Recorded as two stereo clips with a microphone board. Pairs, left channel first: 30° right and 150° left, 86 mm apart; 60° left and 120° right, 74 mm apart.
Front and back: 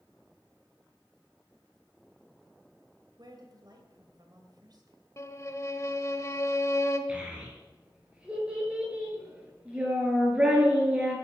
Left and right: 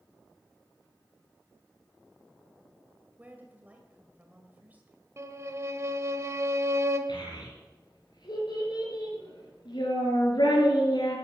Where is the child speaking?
75° left, 6 m.